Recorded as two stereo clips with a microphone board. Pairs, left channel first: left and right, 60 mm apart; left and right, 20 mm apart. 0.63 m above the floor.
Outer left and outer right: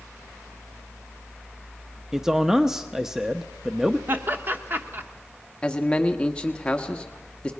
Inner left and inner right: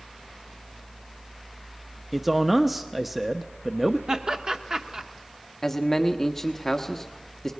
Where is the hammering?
No hammering in this recording.